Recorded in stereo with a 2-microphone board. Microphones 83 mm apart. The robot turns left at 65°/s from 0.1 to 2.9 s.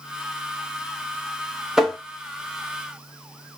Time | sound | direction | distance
1.8 | tapping | 5° right (ahead or behind) | 1.0 m